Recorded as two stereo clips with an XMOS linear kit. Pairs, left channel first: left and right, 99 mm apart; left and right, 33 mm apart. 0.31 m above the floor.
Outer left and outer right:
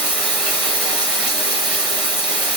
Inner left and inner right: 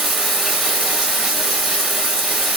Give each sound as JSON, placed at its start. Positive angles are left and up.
{"t": 0.0, "sound": "running water", "side_deg": -15, "distance_m": 1.3}